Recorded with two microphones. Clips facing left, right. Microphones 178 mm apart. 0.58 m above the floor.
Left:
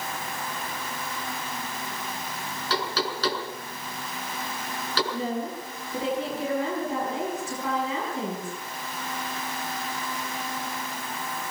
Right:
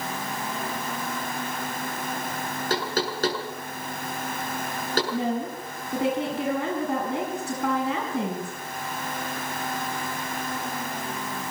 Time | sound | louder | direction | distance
2.7 | knocking | right 1 dB | 45° right (ahead or behind) | 6 m
5.1 | a woman speaking | right 3 dB | 65° right (ahead or behind) | 5 m